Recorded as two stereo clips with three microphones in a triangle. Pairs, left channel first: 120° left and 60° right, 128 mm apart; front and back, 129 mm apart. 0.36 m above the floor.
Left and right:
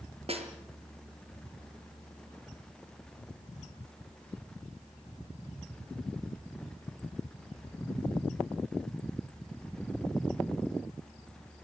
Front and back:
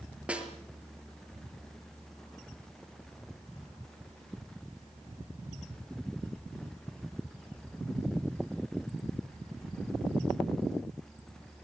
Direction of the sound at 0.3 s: 100° right.